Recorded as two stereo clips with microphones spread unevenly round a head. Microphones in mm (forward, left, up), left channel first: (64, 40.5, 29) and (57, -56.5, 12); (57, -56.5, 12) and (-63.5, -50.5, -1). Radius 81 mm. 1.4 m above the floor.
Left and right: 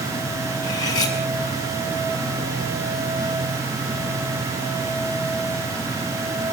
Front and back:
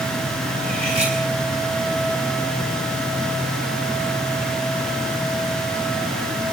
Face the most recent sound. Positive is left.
turn(degrees=120)